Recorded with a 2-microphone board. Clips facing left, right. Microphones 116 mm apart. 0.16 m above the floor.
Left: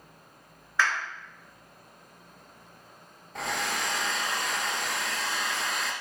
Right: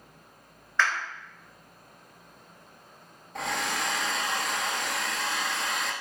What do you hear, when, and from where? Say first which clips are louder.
0.8 s a clap: even; 5° left (ahead or behind), 1.9 m
3.4 s a hair dryer: right 1 dB; centre (ahead or behind), 0.5 m